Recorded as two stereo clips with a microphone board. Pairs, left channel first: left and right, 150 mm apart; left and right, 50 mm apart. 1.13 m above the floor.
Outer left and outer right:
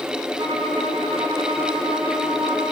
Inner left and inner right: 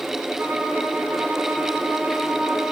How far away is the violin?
About 8 m.